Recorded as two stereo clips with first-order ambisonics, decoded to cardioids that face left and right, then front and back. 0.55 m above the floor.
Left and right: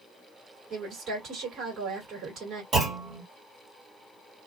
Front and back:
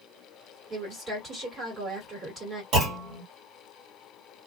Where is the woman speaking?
130° right, 1.7 m.